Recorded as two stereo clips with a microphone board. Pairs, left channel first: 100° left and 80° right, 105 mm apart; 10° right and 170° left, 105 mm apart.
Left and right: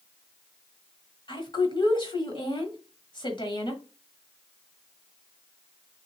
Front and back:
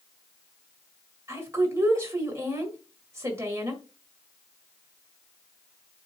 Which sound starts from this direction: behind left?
A woman speaking, at 1.3 s.